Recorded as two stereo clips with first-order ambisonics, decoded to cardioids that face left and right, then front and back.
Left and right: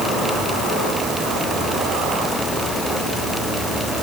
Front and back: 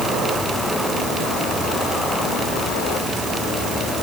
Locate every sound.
Only background noise.